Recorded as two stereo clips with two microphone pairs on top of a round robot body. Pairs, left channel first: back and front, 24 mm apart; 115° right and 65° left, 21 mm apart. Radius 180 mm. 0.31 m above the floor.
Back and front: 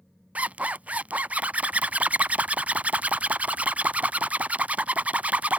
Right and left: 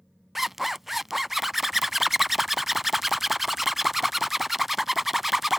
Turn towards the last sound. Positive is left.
turn(degrees=-20)